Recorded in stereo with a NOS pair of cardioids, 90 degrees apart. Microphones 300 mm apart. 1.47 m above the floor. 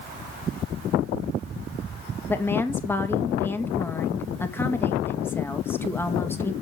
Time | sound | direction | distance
2.3 | a woman speaking | 5° left | 1.9 m